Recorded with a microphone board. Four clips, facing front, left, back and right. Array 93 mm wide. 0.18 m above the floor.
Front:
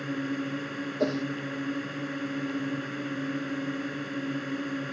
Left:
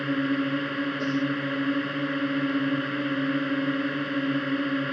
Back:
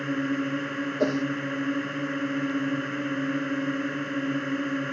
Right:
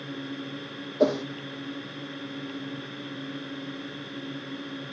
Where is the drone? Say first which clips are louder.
Left 11 dB, back 4 dB; 120° left.